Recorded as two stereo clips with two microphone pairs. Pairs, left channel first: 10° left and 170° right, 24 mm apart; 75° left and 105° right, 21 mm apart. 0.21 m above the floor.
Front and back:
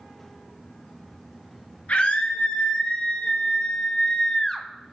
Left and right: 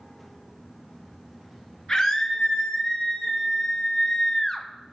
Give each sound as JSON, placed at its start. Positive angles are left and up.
{"t": 1.9, "sound": "a scream", "azimuth_deg": 15, "distance_m": 2.5}